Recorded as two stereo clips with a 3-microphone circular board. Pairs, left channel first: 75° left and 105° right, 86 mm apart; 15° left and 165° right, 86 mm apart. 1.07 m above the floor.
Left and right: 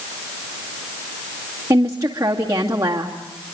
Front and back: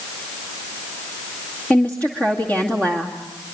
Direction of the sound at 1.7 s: 55° right.